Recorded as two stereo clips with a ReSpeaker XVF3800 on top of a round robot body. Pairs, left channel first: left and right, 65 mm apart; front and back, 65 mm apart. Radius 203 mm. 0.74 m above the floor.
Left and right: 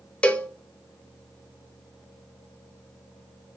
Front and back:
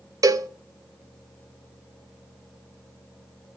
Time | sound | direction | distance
0.2 | a cowbell | 160° left | 1.0 m